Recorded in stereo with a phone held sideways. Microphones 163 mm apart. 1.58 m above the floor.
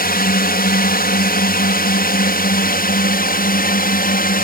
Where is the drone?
70° left (ahead or behind); by 4.4 s 65° left (ahead or behind).